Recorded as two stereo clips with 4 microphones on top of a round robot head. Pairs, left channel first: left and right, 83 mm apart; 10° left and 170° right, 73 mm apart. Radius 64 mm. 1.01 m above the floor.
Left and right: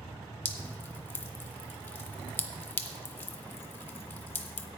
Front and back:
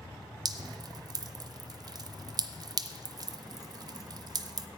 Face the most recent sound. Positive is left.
turn(degrees=155)